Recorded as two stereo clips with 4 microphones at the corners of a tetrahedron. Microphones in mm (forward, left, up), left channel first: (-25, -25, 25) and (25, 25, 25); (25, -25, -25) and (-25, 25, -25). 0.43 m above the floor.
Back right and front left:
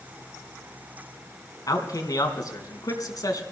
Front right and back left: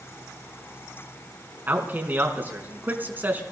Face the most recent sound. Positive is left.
turn(degrees=-165)